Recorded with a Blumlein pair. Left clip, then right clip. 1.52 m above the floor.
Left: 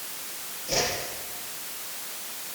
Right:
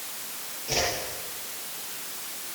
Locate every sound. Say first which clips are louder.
0.7 s a whoosh: even; 10° right, 5.5 m